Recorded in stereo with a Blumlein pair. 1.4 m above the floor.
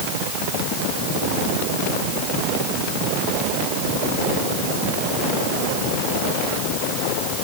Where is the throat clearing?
I don't hear throat clearing.